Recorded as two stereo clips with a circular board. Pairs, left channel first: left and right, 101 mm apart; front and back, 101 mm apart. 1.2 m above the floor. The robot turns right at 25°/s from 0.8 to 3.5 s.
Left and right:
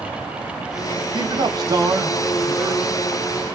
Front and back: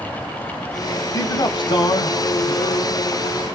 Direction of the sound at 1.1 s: 55° right.